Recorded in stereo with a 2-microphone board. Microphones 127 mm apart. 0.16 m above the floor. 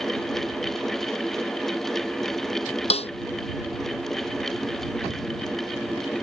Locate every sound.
2.9 s a snare drum: 55° left (ahead or behind)